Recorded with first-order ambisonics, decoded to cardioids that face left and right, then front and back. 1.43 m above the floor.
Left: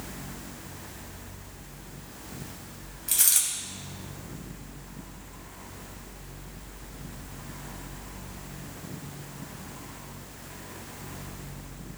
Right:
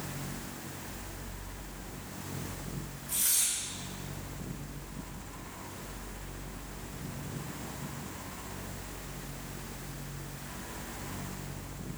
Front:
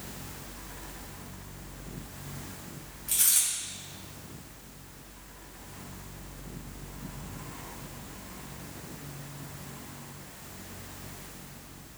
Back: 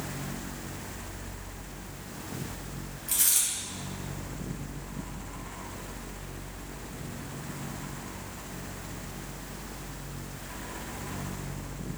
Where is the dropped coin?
95° left, 3 m.